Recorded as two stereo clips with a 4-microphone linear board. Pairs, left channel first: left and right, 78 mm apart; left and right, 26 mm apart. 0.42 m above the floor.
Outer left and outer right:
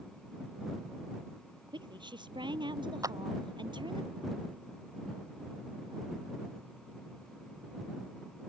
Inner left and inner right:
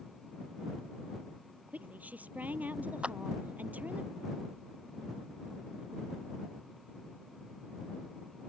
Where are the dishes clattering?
I don't hear dishes clattering.